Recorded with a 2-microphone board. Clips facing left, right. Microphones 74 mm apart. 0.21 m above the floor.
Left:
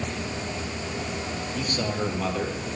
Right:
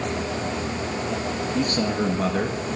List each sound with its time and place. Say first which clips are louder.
1.5 s a man speaking: right 5 dB; 65° right (ahead or behind), 3 m; by 2.7 s 55° right (ahead or behind), 2.5 m